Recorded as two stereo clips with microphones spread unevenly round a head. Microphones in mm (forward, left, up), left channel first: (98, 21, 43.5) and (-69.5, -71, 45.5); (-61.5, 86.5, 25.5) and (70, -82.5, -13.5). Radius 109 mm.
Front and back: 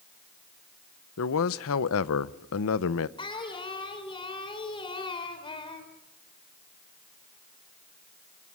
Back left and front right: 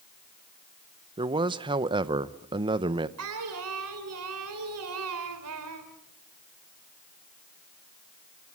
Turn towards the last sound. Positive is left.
turn(degrees=-35)